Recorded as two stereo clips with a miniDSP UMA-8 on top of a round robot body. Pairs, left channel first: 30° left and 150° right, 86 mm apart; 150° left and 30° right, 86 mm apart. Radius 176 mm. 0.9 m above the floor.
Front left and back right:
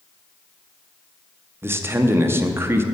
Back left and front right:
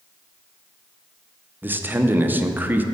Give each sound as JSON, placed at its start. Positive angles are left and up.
{"t": 1.6, "sound": "a man speaking", "azimuth_deg": -95, "distance_m": 0.8}